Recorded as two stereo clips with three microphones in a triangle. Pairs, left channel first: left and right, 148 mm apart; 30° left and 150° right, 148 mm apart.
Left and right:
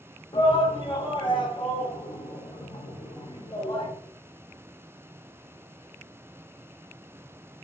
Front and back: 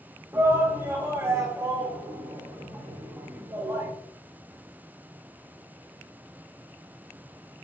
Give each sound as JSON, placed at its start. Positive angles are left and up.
{"t": 0.3, "sound": "a shout", "azimuth_deg": 145, "distance_m": 1.5}